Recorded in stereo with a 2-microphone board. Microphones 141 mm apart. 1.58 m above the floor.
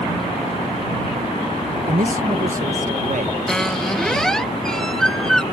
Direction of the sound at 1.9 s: 60° right (ahead or behind).